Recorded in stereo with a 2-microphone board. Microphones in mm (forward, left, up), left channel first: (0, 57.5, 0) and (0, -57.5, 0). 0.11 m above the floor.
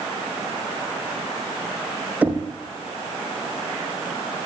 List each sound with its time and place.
2.2 s knocking: 10° right (ahead or behind), 3.5 m